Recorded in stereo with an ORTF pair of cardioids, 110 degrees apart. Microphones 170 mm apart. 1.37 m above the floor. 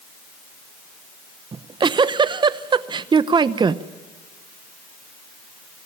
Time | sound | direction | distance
1.5 | a giggle | 25° right | 0.8 m